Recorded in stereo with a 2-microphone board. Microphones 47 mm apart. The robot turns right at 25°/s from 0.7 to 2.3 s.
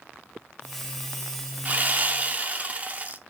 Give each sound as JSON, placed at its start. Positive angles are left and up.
{"t": 1.6, "sound": "sawing", "side_deg": -35, "distance_m": 0.5}